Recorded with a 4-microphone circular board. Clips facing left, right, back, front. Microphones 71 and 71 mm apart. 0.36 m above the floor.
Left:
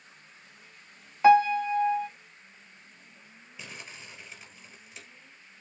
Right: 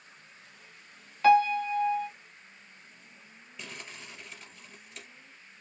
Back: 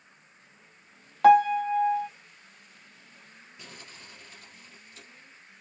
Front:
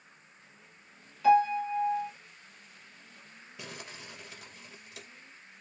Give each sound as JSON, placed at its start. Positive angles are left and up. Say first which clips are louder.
{"t": 1.2, "sound": "a piano", "louder": "left 2 dB, back 5 dB", "azimuth_deg": 160, "distance_m": 0.8}
{"t": 3.6, "sound": "crumpling", "louder": "even, front 4 dB", "azimuth_deg": 5, "distance_m": 2.0}